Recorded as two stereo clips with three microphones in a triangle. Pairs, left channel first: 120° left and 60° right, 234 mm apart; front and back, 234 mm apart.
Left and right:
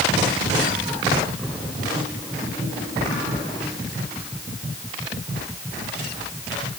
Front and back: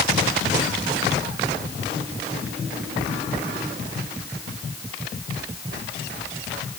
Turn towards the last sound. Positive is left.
No sound to turn to.